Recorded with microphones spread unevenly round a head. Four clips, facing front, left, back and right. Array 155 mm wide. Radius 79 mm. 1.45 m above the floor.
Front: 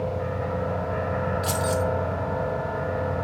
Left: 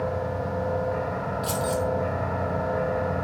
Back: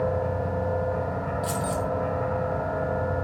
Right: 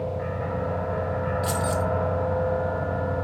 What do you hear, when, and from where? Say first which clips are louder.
1.4 s keys jangling: left 2 dB, front 2 dB; 10° right, 2.5 m